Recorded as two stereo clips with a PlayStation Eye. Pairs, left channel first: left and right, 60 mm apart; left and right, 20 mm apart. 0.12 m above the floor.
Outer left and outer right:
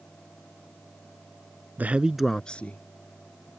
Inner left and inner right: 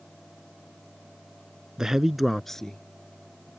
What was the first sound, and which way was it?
A man speaking, 30° right (ahead or behind).